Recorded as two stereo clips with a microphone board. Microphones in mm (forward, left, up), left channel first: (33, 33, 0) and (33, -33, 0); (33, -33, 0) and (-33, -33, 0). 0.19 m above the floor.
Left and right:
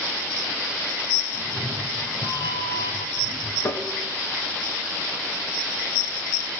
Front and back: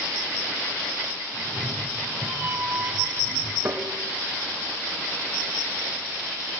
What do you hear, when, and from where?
1.3 s a cat meowing: 105° left, 6.5 m
3.6 s tapping: 125° left, 2 m